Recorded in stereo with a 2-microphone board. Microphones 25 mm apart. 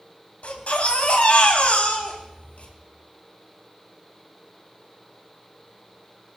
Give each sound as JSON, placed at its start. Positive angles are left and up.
{"t": 0.4, "sound": "a baby crying", "side_deg": 80, "distance_m": 3.0}